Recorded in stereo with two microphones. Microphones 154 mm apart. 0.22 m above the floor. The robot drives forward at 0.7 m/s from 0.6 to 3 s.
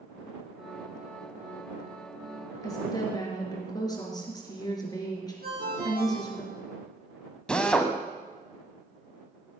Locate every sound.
2.6 s a woman speaking: 25° left (ahead or behind), 4.5 m
5.4 s a ringtone: 80° right, 5.5 m
7.5 s a drill: 5° left (ahead or behind), 1.3 m